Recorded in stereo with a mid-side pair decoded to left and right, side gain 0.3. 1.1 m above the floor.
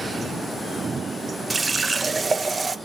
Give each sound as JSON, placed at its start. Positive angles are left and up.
{"t": 1.5, "sound": "a running tap", "azimuth_deg": -45, "distance_m": 0.5}